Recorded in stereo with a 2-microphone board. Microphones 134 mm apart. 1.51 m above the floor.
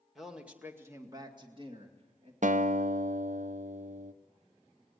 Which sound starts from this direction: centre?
A man speaking, at 0.1 s.